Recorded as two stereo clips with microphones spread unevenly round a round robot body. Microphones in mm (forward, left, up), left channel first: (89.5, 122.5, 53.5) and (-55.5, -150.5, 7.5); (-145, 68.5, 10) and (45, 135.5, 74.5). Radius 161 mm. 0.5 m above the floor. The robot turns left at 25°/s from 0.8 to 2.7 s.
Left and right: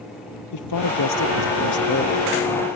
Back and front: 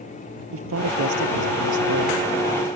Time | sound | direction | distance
0.5 | a man speaking | 30° left | ?